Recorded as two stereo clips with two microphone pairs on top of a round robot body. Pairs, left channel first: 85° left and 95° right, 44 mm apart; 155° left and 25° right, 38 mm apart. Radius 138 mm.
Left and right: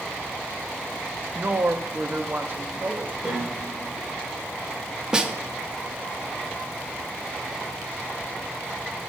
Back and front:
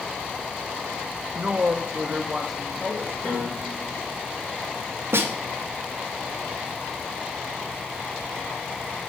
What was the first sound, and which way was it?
A woman speaking, 80° right.